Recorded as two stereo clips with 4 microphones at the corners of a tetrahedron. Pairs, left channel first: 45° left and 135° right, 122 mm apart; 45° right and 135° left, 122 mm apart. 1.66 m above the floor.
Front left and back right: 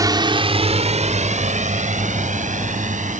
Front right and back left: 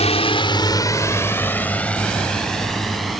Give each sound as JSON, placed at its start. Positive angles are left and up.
{"t": 0.0, "sound": "a drone", "azimuth_deg": -75}